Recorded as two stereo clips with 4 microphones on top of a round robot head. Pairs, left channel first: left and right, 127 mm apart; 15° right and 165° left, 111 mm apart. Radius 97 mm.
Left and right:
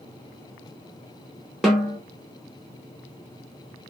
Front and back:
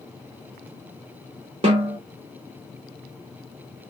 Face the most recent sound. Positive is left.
turn(degrees=180)